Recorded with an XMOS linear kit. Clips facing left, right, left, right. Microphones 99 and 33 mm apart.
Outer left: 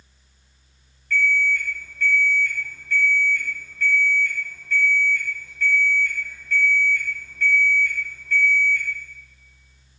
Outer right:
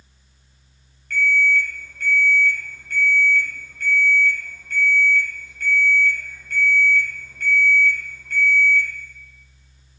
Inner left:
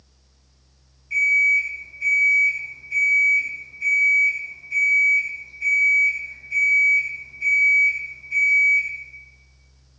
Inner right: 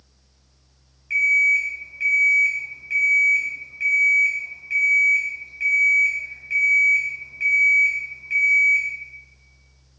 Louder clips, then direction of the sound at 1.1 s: Outer right 2 dB, even; 65° right (ahead or behind).